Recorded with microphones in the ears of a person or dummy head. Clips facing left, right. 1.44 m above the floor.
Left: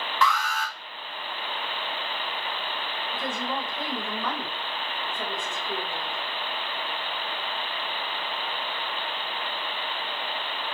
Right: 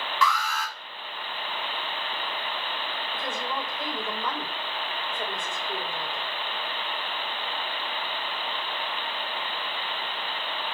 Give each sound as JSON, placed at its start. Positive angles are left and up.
{"t": 0.2, "sound": "an alarm", "side_deg": 40, "distance_m": 1.7}
{"t": 3.1, "sound": "a woman speaking", "side_deg": 60, "distance_m": 4.0}